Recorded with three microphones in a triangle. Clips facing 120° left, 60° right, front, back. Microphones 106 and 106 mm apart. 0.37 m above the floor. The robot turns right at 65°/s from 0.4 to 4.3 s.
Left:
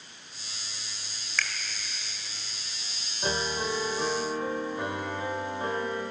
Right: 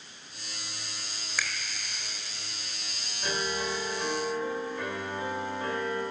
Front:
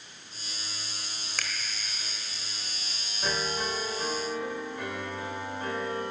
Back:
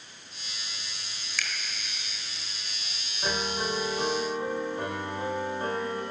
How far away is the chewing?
No chewing in this recording.